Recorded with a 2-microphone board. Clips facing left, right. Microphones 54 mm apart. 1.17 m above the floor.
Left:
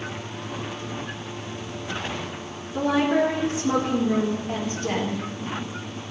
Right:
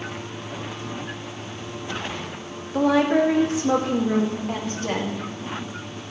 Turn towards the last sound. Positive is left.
turn(degrees=-65)  # may be behind; listen again after turning